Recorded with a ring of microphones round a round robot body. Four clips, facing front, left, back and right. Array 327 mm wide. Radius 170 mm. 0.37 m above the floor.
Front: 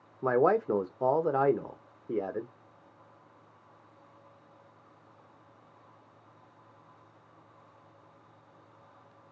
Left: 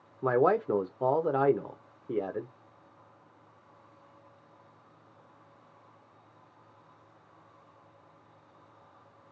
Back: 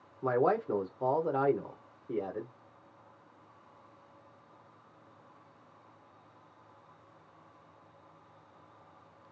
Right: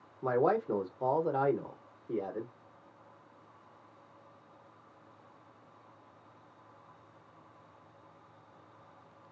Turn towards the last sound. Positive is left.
turn(degrees=40)